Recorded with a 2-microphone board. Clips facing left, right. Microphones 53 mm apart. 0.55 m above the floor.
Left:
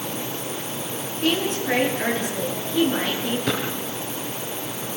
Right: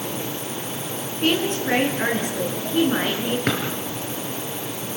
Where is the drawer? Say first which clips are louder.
Right 1 dB; 60° right (ahead or behind), 6 m.